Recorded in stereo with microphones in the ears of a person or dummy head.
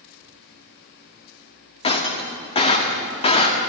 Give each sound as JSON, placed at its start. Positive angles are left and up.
{"t": 1.8, "sound": "breaking glass", "side_deg": 35, "distance_m": 1.5}